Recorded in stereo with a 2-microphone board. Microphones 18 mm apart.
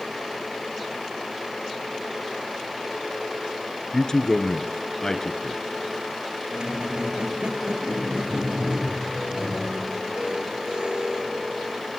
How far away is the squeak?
About 0.5 m.